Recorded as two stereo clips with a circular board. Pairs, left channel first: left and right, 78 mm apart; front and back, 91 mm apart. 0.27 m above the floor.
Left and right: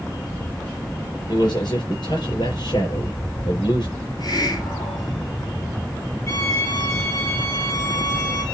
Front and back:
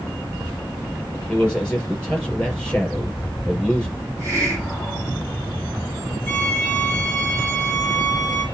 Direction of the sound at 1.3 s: 80° left.